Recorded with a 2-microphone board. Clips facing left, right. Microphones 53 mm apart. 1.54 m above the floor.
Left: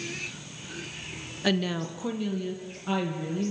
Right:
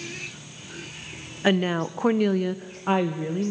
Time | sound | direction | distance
1.4 | a woman speaking | 25° right (ahead or behind) | 1.1 m